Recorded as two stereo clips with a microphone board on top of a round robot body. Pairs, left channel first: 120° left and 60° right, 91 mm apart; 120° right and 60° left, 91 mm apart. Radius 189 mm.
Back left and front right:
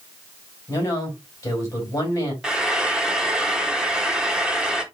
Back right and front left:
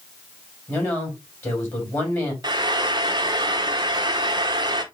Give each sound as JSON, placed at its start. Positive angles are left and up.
{"t": 0.7, "sound": "a woman speaking", "azimuth_deg": 175, "distance_m": 3.5}
{"t": 2.4, "sound": "frying", "azimuth_deg": 20, "distance_m": 1.2}